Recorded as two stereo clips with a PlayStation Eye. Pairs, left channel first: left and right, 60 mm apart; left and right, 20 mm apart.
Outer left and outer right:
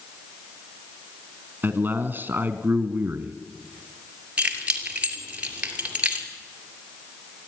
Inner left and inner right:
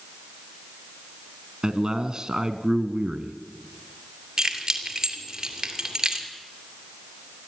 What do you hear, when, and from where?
1.6 s a man speaking: 35° right (ahead or behind), 1.5 m
4.4 s keys jangling: 25° right (ahead or behind), 2.5 m